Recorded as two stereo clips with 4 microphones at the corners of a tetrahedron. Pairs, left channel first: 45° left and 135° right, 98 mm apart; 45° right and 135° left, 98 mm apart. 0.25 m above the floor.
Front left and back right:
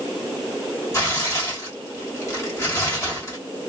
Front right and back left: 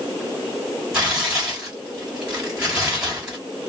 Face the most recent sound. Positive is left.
turn(degrees=60)